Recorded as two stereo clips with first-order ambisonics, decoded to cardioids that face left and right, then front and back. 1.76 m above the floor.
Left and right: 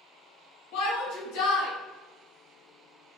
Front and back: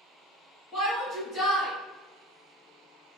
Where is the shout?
70° left, 1.5 m.